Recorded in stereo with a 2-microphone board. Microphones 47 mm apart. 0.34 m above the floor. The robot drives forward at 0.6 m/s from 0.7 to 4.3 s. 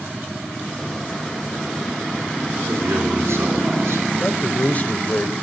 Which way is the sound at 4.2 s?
35° left (ahead or behind).